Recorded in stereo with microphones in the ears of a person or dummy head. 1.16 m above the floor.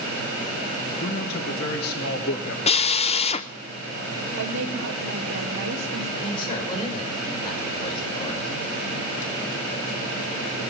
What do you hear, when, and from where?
1.0 s a man speaking: 50° left (ahead or behind), 2.5 m; by 2.6 s 55° left (ahead or behind), 1.6 m
2.7 s a drill: 35° left (ahead or behind), 0.6 m
4.4 s a woman speaking: 85° right, 2.5 m
6.2 s a man speaking: 25° left (ahead or behind), 5.5 m